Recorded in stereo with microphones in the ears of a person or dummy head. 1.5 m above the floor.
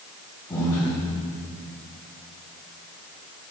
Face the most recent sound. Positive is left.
turn(degrees=15)  # may be behind; listen again after turning